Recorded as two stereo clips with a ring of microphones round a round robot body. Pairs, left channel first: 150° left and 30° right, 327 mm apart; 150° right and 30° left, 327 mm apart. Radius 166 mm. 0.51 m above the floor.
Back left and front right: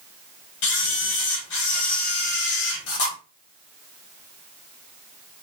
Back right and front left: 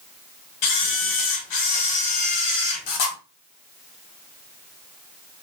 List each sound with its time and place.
0.6 s a camera shutter: 165° right, 1.0 m